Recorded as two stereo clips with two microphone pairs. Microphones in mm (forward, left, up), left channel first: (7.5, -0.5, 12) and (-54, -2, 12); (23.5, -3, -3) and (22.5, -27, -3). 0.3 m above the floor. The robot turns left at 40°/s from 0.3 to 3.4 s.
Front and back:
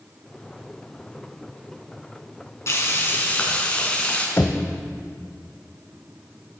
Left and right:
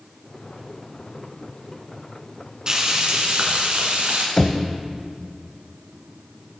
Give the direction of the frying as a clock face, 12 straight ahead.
1 o'clock.